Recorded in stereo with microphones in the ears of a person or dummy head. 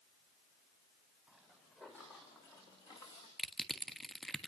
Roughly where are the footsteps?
Centre.